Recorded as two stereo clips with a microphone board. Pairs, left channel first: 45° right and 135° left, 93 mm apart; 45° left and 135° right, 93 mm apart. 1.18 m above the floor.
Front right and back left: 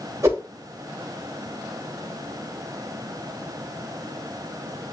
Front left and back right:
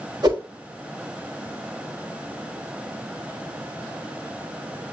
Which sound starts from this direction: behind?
A whoosh, at 0.2 s.